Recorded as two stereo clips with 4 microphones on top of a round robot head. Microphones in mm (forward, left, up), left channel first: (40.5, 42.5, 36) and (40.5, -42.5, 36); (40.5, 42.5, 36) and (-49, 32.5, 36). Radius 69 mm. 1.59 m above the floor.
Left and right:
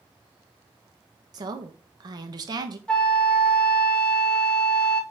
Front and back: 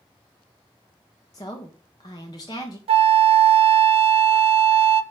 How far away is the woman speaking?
About 1.3 m.